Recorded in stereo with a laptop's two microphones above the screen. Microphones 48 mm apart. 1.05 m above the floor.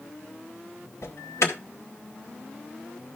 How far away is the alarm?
About 2.0 m.